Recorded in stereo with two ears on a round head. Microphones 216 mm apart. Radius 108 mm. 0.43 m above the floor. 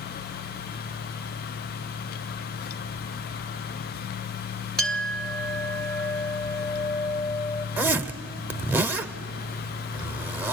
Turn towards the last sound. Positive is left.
turn(degrees=-10)  # may be behind; listen again after turning